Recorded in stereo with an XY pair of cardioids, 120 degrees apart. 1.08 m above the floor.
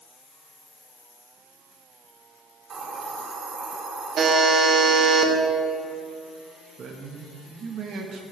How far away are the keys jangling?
No keys jangling in this recording.